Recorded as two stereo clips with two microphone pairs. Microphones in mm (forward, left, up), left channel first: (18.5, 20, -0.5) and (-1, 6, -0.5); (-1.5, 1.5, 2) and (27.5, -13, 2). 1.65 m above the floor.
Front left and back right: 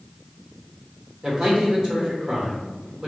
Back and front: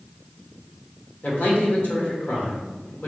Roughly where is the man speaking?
Behind.